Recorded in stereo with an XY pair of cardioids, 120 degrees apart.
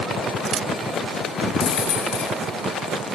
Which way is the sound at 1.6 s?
65° left.